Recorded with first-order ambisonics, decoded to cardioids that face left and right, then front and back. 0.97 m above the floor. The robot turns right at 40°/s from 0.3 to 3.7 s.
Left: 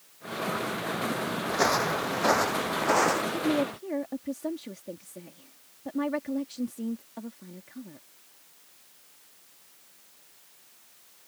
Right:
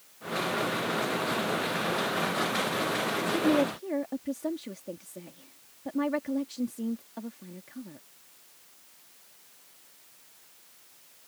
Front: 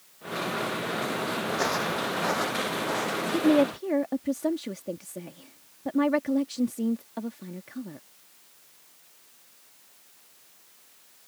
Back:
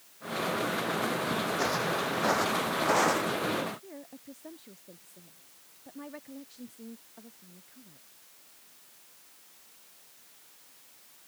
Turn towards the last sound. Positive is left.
turn(degrees=0)